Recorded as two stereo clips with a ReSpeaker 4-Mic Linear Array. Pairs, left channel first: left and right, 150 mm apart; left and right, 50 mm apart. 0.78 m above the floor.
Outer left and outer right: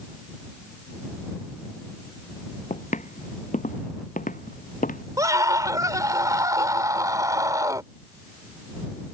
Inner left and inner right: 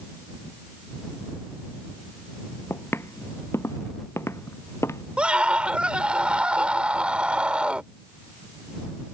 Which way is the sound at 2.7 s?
55° left (ahead or behind).